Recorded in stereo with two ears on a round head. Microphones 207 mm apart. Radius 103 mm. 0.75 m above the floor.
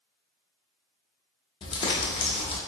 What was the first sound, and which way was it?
Crumpling, 25° left (ahead or behind).